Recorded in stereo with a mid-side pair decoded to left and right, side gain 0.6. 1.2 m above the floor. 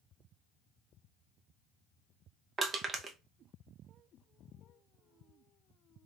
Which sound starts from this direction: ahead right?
Crushing, at 2.6 s.